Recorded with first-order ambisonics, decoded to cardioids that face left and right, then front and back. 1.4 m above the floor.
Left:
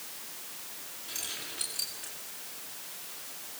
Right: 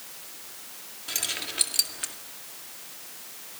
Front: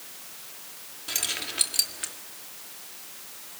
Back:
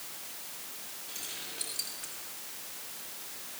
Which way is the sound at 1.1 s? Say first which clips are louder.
Right 8 dB, front 12 dB; 35° right.